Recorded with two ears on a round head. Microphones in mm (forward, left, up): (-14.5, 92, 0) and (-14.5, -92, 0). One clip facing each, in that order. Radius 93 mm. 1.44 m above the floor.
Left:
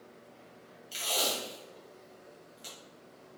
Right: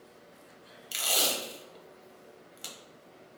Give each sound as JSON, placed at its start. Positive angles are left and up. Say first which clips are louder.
{"t": 0.9, "sound": "tape being pulled", "louder": "right 1 dB", "side_deg": -70, "distance_m": 0.9}